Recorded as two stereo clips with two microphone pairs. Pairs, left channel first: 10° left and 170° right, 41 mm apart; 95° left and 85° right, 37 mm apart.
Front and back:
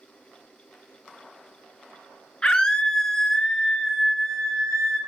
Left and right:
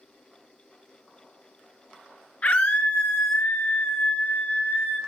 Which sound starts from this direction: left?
A scream, at 2.4 s.